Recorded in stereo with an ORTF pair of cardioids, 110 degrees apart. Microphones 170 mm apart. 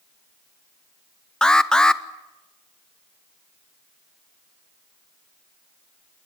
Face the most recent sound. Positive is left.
turn(degrees=5)